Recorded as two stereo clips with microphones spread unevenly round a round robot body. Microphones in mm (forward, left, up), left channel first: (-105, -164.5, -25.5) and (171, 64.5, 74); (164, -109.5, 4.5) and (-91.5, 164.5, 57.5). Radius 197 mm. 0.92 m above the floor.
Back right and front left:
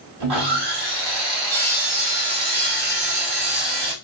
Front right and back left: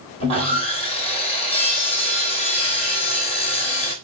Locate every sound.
0.2 s sawing: 25° left, 2.5 m